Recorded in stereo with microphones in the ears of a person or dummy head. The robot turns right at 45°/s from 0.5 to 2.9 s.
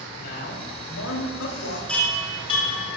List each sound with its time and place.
0.2 s a man speaking: 60° left, 4 m; by 1.8 s 115° left, 4 m
1.9 s a chime: 5° left, 2.5 m; by 3.0 s 50° left, 2.5 m